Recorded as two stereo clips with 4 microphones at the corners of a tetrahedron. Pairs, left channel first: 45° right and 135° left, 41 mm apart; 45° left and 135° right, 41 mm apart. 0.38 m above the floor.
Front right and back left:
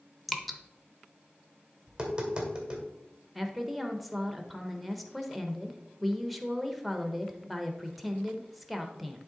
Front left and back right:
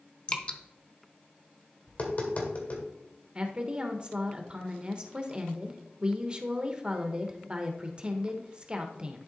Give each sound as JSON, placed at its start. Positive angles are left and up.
{"t": 0.3, "sound": "dripping", "azimuth_deg": 40, "distance_m": 0.6}
{"t": 1.9, "sound": "tapping", "azimuth_deg": 70, "distance_m": 1.9}
{"t": 3.4, "sound": "a woman speaking", "azimuth_deg": -135, "distance_m": 0.9}